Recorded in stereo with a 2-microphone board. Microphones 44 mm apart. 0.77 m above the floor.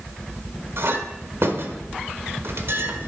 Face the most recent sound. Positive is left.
turn(degrees=-70)  # may be behind; listen again after turning